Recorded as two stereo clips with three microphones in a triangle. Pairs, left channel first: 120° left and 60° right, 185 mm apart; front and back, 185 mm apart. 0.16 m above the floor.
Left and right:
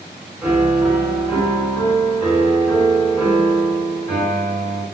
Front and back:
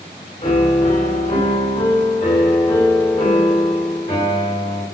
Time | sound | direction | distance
0.4 | a piano | 20° left | 1.7 m